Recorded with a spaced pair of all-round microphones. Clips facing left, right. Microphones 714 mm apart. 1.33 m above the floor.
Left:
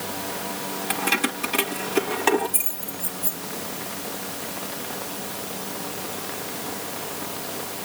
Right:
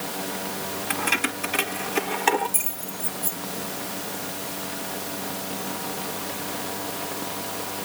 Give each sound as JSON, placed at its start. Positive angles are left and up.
{"t": 0.9, "sound": "keys jangling", "side_deg": 60}